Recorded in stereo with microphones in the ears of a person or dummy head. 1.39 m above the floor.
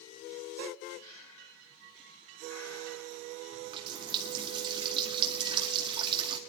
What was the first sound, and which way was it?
Breathing, 25° left (ahead or behind).